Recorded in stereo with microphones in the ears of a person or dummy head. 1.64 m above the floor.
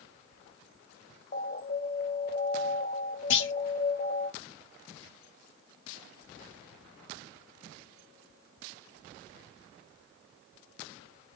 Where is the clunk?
70° left (ahead or behind), 0.6 m.